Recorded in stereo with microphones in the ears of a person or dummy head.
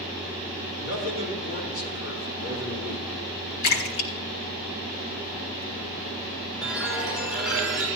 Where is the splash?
75° left (ahead or behind), 1.7 m.